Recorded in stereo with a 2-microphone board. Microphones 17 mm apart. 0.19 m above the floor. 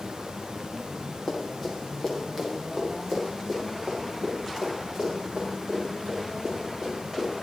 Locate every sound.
1.3 s running footsteps: 10° left (ahead or behind), 5 m; by 7.3 s 25° right (ahead or behind), 12 m